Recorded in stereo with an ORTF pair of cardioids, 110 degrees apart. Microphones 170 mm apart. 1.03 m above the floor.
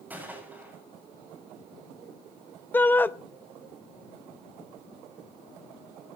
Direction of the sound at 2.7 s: 10° left.